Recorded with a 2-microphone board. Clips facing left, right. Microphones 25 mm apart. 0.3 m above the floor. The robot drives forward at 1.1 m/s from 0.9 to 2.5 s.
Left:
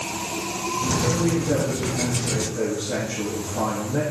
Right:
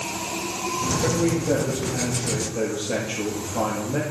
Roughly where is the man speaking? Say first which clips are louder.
Right 2 dB; right.